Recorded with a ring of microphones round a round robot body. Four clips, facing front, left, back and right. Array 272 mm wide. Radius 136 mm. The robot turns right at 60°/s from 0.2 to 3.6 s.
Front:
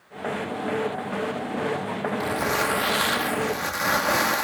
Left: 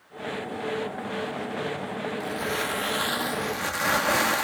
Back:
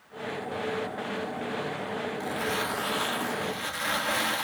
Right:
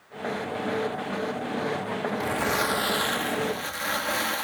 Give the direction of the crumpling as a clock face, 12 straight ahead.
2 o'clock.